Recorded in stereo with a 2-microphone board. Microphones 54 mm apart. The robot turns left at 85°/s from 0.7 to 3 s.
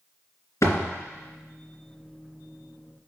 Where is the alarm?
I don't hear an alarm.